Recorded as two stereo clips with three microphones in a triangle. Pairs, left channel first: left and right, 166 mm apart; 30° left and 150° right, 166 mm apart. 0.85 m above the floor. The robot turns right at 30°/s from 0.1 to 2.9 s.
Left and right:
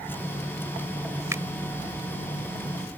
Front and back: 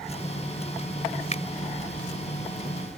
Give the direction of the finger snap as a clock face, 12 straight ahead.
1 o'clock.